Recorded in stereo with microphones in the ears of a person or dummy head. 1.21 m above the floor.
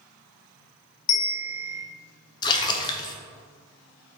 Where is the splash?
25° left (ahead or behind), 0.8 m.